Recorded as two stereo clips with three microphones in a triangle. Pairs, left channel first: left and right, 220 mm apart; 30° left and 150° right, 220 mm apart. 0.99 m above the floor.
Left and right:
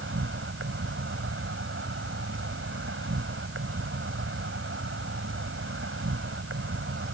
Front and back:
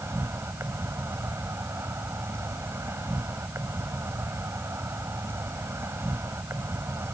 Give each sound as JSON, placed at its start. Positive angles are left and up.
{"t": 0.0, "sound": "an insect", "azimuth_deg": -70}